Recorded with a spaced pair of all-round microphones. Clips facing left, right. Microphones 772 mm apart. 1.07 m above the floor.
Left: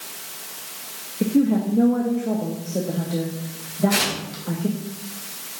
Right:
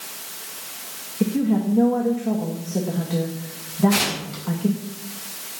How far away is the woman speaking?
About 1.8 m.